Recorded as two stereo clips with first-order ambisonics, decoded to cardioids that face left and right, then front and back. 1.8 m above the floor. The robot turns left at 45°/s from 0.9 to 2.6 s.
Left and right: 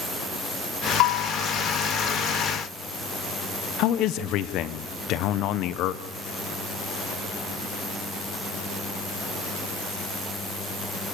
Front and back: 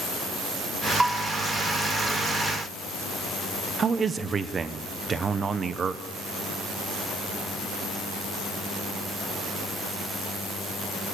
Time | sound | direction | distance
1.0 | a bell | 95° left | 0.9 m
3.8 | a man speaking | 115° left | 0.9 m